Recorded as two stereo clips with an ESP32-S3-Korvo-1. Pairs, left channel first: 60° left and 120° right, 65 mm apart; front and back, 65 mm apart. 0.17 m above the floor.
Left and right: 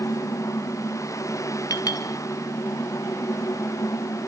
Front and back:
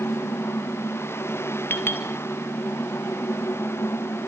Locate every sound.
1.7 s a clink: 50° left, 2 m